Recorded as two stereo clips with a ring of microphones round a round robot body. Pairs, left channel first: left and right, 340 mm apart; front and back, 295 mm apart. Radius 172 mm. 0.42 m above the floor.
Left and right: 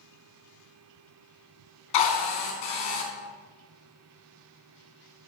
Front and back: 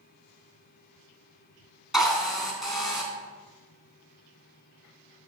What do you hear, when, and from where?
1.9 s a drill: 90° left, 3 m